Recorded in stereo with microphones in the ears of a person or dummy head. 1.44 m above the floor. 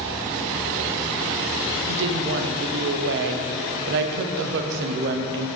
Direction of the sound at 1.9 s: 65° right (ahead or behind).